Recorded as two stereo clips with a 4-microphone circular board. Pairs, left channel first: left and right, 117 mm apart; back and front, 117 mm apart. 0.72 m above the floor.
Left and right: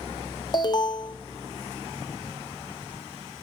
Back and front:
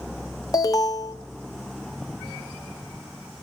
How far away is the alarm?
About 1.1 m.